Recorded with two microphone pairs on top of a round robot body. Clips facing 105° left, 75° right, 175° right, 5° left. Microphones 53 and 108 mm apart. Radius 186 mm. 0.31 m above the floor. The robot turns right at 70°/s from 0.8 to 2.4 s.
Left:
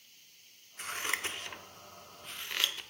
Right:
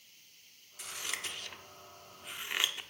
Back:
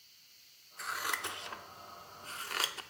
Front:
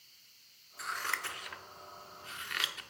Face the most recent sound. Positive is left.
turn(degrees=-150)